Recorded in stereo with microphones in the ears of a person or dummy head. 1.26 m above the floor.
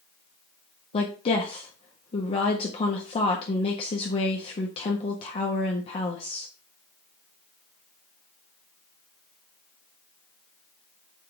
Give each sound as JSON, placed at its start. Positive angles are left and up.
{"t": 0.9, "sound": "a woman speaking", "side_deg": 35, "distance_m": 1.4}